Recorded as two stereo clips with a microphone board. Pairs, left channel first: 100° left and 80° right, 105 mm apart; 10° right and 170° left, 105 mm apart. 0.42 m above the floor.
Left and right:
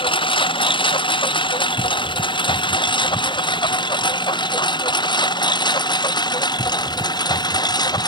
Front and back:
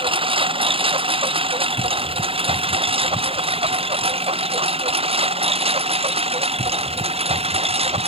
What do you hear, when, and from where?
0.0 s a lawn mower: 135° left; by 8.1 s 150° left